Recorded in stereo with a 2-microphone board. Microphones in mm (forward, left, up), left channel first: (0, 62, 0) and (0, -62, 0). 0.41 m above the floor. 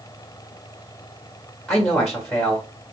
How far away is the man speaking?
About 1.7 m.